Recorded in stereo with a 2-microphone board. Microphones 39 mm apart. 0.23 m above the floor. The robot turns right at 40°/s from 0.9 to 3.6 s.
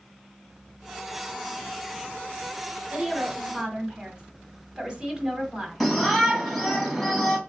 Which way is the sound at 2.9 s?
20° right (ahead or behind).